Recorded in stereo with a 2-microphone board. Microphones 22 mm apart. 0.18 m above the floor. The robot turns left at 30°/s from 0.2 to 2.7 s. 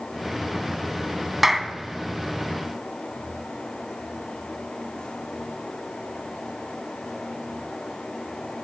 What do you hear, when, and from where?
1.4 s a clap: 10° right (ahead or behind), 0.9 m; by 1.7 s 15° right (ahead or behind), 0.9 m